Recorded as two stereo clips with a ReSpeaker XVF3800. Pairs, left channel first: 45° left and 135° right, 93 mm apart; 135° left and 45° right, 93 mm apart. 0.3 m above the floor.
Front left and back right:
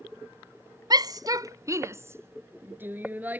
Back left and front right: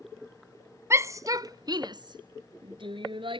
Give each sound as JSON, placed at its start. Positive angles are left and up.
{"t": 0.9, "sound": "a shout", "azimuth_deg": -100}